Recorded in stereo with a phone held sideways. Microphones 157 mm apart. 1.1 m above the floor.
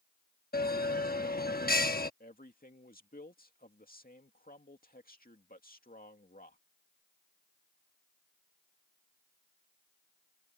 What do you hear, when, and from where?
0.5 s a bell: 75° left (ahead or behind)
2.2 s a man speaking: 65° left (ahead or behind)